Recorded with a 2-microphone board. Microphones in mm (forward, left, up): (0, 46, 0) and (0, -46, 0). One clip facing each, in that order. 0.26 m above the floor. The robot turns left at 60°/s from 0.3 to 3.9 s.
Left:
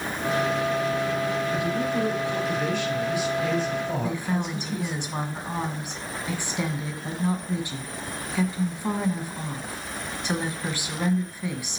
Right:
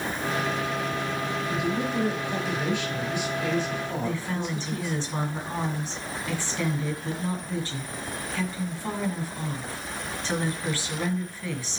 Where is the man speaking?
90° right, 6 m; by 5.0 s 130° left, 6 m.